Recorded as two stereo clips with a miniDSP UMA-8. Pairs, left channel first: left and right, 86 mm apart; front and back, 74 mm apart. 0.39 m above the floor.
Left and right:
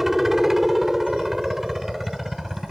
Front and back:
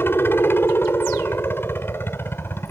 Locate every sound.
0.0 s a helicopter: 5° right